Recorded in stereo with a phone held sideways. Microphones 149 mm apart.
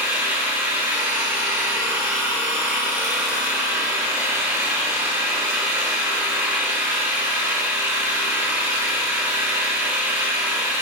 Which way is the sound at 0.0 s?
15° right (ahead or behind).